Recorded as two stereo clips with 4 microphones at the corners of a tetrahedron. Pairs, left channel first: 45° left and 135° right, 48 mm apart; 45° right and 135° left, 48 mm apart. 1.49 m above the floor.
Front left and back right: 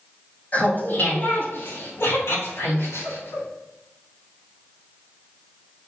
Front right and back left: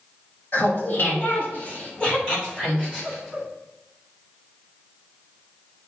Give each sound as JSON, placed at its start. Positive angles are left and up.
{"t": 0.5, "sound": "laughter", "azimuth_deg": -5, "distance_m": 3.0}